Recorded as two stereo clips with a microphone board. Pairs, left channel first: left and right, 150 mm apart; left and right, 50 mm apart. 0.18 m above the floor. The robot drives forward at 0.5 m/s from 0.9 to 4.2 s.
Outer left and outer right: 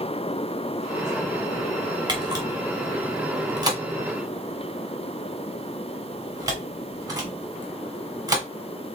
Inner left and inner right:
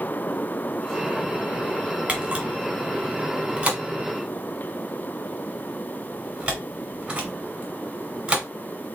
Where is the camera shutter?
30° right (ahead or behind), 1.6 m; by 8.4 s 25° right (ahead or behind), 1.8 m.